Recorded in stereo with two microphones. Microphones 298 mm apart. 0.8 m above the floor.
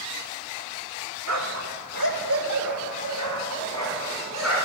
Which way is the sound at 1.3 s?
65° right (ahead or behind).